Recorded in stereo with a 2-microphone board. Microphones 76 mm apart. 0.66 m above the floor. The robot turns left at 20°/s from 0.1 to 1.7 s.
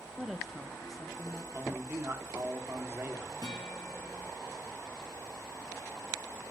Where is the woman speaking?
5° right (ahead or behind), 0.6 m; by 1.4 s 5° left (ahead or behind), 0.6 m.